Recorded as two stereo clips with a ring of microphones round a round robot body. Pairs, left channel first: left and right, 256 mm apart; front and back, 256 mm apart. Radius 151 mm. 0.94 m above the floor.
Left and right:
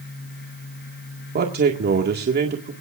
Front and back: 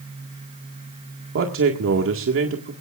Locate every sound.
1.4 s a man speaking: 140° right, 2.0 m